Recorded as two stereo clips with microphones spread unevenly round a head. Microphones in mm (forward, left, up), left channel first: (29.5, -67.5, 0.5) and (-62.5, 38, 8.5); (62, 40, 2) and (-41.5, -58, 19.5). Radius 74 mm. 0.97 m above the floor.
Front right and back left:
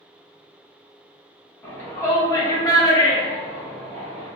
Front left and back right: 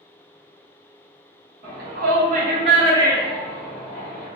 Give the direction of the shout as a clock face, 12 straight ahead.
4 o'clock.